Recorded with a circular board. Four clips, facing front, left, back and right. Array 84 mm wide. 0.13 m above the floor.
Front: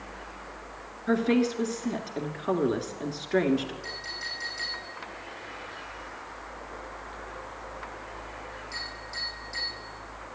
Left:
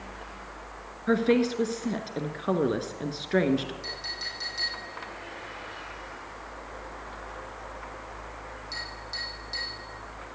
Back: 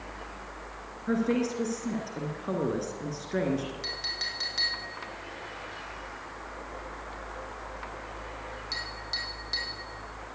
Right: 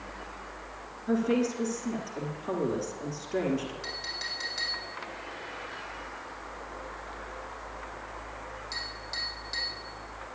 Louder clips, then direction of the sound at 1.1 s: Left 4 dB, front 3 dB; 65° left.